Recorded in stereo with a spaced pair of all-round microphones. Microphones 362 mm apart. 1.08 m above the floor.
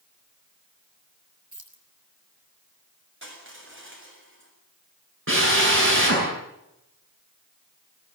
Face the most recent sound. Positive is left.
turn(degrees=-35)  # may be behind; listen again after turning